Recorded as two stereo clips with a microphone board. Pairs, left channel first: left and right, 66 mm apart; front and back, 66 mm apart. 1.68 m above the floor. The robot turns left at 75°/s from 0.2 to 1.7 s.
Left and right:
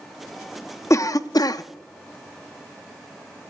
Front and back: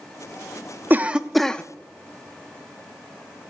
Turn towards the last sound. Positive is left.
turn(degrees=65)